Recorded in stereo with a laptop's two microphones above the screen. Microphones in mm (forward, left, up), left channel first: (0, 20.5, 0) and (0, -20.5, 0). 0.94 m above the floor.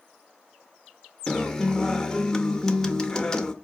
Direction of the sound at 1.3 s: 15° left (ahead or behind).